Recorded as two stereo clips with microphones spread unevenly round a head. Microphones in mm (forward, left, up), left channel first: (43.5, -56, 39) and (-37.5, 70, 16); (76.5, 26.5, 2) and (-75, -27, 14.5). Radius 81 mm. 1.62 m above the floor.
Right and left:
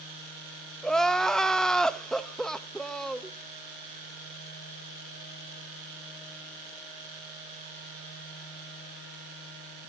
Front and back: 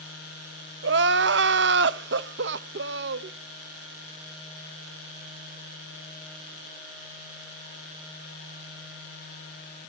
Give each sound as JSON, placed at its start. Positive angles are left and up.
{"t": 0.8, "sound": "crying", "azimuth_deg": -140, "distance_m": 0.7}